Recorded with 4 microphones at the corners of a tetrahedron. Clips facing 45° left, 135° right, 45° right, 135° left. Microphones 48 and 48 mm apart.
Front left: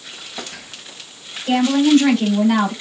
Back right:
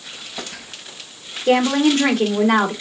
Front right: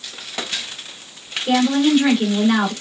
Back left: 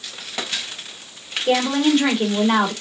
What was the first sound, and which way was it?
A woman speaking, 140° right.